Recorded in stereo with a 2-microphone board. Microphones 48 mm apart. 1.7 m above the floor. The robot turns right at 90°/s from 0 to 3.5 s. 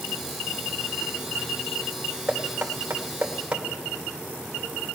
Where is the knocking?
40° right (ahead or behind), 1.8 m; by 3.6 s 25° right (ahead or behind), 1.8 m.